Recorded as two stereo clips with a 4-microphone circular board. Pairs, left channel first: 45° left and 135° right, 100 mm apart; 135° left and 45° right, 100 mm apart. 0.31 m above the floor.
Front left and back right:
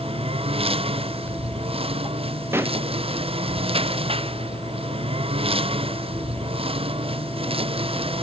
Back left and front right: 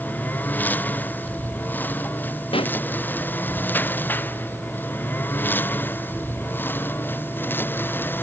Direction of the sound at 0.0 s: 155° right.